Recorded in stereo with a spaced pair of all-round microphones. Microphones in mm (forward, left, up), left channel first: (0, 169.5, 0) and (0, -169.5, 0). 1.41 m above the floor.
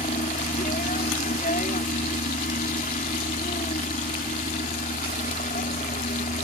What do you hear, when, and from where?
0.0 s a helicopter: 25° left (ahead or behind)